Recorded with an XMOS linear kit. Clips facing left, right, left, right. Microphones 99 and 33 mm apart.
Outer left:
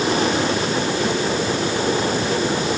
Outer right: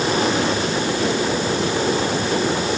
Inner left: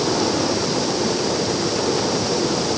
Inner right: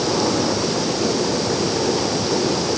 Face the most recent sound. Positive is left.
No sound to turn to.